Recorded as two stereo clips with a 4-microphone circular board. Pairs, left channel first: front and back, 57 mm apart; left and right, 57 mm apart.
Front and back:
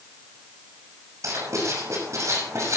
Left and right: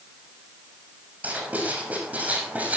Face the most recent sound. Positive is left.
turn(degrees=-155)